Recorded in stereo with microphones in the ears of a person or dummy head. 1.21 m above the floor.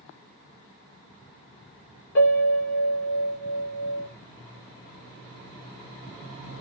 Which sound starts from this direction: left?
A piano, at 2.1 s.